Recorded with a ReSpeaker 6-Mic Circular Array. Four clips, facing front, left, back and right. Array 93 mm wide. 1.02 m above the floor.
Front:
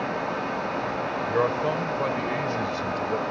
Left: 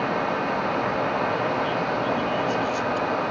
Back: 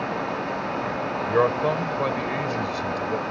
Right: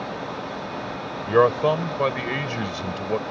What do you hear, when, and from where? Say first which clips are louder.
1.3 s a man speaking: right 6 dB, back 4 dB; 105° right; by 3.2 s 90° right